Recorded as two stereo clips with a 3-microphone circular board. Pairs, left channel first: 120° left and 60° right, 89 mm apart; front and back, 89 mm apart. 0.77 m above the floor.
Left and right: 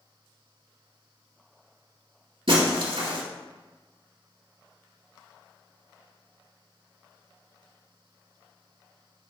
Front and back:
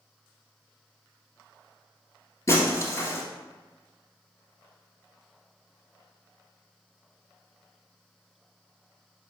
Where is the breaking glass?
55° right, 1.7 m.